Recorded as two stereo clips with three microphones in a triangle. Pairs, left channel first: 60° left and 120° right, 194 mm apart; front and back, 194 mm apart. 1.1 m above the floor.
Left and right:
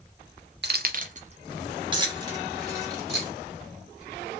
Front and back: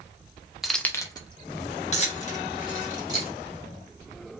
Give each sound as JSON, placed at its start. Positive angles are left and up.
{"t": 0.6, "sound": "keys jangling", "azimuth_deg": -95, "distance_m": 0.5}